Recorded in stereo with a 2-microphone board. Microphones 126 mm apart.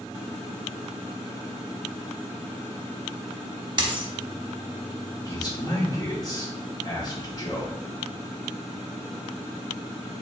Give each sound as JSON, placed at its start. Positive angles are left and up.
{"t": 3.8, "sound": "a dropped coin", "side_deg": -35, "distance_m": 0.6}
{"t": 5.2, "sound": "a man speaking", "side_deg": 30, "distance_m": 1.4}